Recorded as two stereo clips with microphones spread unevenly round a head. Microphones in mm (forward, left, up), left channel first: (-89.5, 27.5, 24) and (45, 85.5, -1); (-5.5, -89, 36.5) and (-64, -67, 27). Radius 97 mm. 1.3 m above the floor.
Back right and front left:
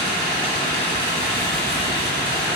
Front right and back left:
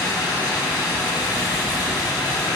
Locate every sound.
0.0 s running water: 20° right, 1.7 m